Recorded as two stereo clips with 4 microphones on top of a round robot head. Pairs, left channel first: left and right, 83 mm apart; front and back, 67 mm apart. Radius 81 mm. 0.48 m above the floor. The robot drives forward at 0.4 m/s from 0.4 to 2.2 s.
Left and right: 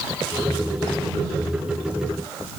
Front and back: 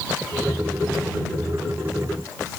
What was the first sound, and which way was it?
Only background noise.